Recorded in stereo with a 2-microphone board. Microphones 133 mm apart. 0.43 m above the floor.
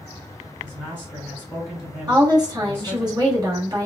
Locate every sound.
0.6 s a man speaking: 5° right (ahead or behind), 1.6 m
2.1 s a woman speaking: 30° right (ahead or behind), 1.3 m